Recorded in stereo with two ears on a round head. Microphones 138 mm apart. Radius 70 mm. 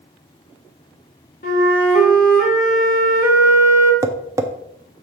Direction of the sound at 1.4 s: 55° left (ahead or behind).